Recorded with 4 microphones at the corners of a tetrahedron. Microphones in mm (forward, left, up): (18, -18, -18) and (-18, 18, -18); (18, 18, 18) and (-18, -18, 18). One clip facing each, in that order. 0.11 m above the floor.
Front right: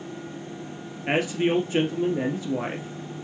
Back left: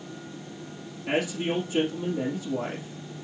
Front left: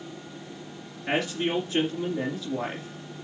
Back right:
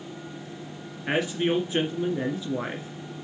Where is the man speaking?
70° right, 2 m.